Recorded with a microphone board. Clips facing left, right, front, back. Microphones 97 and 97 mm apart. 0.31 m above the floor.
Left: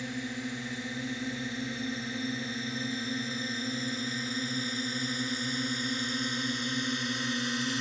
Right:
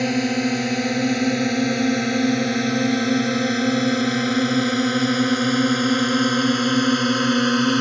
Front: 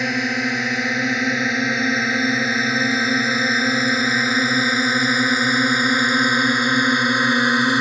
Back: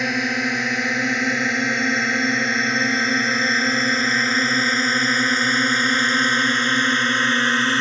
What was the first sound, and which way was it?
A drone, 90° right.